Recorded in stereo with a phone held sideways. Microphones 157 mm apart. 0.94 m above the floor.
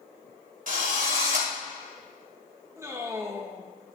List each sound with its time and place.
0.7 s a drill: 60° right (ahead or behind), 2.5 m
2.8 s a man speaking: 20° right (ahead or behind), 1.3 m